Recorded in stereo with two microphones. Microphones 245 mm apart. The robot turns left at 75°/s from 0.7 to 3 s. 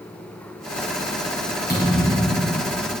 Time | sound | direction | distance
1.7 | a thud | 135° right | 3.5 m